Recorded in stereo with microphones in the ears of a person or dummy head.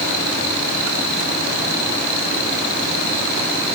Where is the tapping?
I don't hear tapping.